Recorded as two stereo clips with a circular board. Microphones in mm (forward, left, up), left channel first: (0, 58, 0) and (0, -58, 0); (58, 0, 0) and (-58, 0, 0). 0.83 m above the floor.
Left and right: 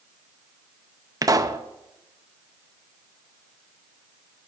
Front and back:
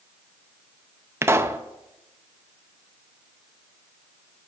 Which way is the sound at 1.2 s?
125° right.